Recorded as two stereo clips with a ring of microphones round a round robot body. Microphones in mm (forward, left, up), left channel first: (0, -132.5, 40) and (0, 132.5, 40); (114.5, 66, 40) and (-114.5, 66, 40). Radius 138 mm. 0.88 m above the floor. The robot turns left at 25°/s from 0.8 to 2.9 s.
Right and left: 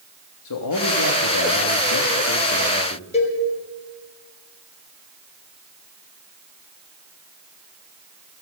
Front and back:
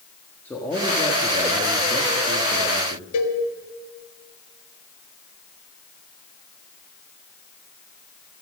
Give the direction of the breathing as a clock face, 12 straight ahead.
No breathing in this recording.